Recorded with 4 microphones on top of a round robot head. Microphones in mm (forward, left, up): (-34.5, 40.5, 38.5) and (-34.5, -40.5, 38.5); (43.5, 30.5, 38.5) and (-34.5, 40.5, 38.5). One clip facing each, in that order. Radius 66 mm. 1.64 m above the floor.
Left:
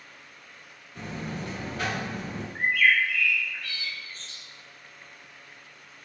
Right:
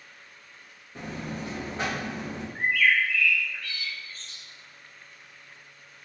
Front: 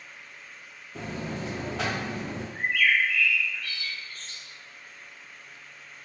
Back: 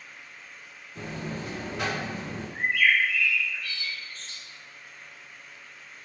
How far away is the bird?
About 0.6 m.